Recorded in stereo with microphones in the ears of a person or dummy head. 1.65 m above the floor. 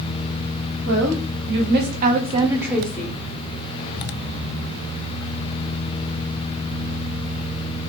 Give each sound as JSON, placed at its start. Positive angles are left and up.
{"t": 0.8, "sound": "a woman speaking", "side_deg": -80, "distance_m": 1.1}